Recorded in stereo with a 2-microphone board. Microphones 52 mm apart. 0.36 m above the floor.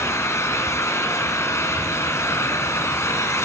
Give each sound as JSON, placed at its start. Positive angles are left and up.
{"t": 0.0, "sound": "an engine running", "side_deg": 60, "distance_m": 3.0}